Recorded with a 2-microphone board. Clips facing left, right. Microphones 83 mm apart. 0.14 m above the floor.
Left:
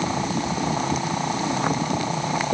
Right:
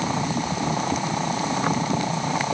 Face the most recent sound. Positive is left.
No sound to turn to.